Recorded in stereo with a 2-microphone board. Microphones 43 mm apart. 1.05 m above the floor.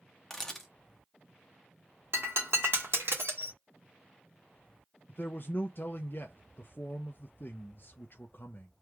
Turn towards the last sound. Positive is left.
turn(degrees=55)  # may be behind; listen again after turning